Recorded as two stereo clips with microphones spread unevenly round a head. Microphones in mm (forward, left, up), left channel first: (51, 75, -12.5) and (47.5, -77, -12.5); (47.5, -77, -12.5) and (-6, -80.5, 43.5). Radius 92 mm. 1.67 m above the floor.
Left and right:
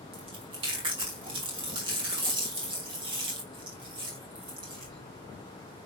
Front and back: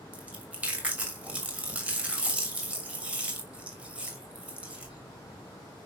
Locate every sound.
0.1 s chewing: 155° right, 3 m